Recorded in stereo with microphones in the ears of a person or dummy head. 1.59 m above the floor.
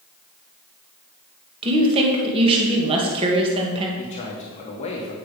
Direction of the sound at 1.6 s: 25° right (ahead or behind).